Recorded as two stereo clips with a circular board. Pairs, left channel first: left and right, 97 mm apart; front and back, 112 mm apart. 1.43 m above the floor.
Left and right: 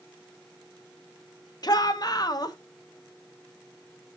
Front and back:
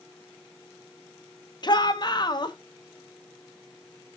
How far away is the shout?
About 1.0 m.